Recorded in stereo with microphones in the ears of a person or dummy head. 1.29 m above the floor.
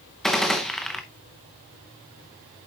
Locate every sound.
0.2 s a gunshot: centre (ahead or behind), 0.6 m